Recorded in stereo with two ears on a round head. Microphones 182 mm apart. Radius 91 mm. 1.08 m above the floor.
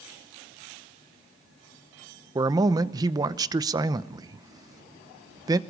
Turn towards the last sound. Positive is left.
turn(degrees=-20)  # may be behind; listen again after turning